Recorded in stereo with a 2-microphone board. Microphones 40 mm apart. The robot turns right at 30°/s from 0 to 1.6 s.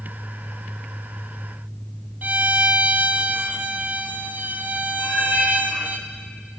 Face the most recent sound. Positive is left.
turn(degrees=-10)  # may be behind; listen again after turning